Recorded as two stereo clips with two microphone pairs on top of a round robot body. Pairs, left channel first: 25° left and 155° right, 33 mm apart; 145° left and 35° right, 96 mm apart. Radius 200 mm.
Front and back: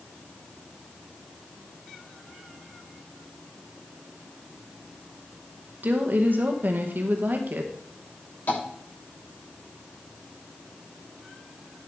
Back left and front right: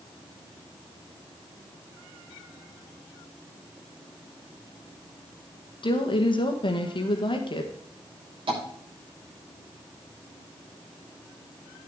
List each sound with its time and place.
5.8 s a woman speaking: 175° left, 1.9 m
8.5 s tapping: 5° right, 7 m